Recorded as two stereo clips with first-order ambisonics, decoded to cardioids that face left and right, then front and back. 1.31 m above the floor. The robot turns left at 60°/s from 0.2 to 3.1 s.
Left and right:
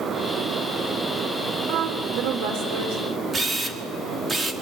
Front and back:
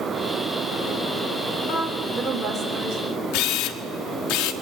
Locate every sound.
1.7 s a woman speaking: 50° right, 4.5 m; by 3.0 s 130° right, 4.5 m
3.3 s a camera shutter: 15° right, 1.5 m